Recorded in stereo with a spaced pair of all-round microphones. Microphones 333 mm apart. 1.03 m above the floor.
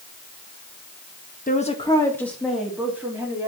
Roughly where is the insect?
No insect in this recording.